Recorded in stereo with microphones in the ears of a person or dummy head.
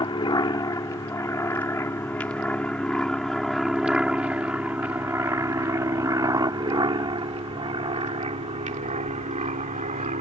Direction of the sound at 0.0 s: 20° left (ahead or behind).